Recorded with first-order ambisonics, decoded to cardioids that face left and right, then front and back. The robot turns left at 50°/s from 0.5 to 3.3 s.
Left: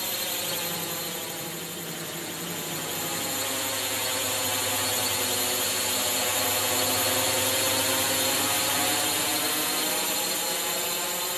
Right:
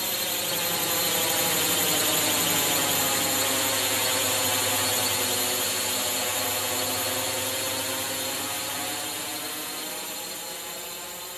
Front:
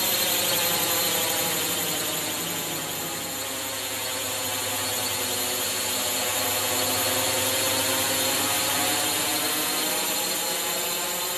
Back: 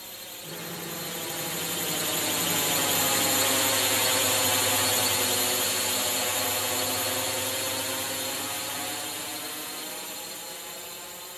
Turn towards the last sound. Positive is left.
turn(degrees=35)